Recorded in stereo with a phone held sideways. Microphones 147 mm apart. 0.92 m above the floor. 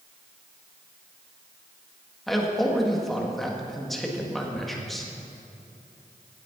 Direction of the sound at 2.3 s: Centre (ahead or behind).